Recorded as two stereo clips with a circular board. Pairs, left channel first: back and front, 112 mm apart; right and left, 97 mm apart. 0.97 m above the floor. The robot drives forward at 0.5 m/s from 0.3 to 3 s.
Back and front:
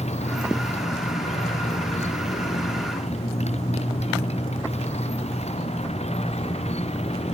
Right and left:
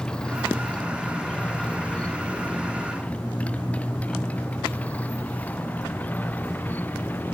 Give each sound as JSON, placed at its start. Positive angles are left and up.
{"t": 0.0, "sound": "a motorcycle", "azimuth_deg": -170}